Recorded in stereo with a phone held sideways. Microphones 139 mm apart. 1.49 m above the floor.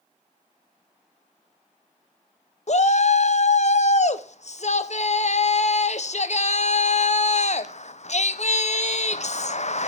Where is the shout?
55° left (ahead or behind), 1.0 m.